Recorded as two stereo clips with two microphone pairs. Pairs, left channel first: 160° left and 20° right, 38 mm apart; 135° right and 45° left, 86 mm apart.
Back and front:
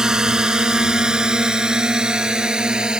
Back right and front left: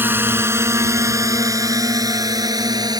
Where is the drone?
30° left; by 3.0 s 40° left.